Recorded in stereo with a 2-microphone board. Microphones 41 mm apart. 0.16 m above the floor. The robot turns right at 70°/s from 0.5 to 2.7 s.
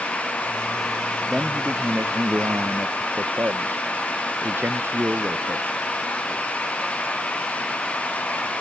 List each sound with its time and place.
1.3 s a man speaking: 170° right; by 5.7 s 70° right